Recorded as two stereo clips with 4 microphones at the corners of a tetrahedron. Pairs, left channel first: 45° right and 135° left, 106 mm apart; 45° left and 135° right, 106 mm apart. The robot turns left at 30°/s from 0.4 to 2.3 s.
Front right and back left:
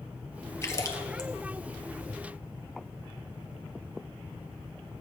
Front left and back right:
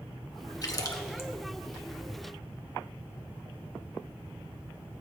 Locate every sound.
0.6 s a splash: 5° left, 1.2 m; by 1.3 s 15° right, 1.2 m